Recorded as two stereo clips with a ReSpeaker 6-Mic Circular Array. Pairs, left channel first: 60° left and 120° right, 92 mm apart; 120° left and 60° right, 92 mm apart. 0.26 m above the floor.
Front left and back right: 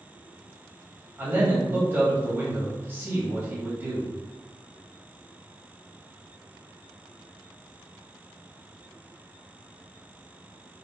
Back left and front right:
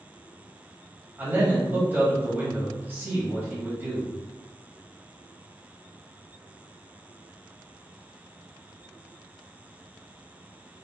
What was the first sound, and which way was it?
A man speaking, 90° right.